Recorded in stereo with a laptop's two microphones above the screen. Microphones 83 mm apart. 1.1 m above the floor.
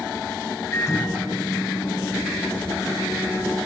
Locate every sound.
0.7 s a microwave: 35° left (ahead or behind), 3.5 m